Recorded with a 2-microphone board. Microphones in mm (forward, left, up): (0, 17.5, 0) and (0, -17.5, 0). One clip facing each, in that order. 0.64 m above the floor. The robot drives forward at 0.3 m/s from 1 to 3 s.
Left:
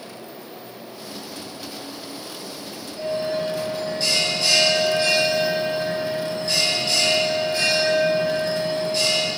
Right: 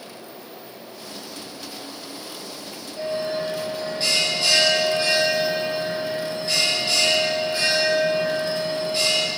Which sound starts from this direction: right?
A bell, at 3.0 s.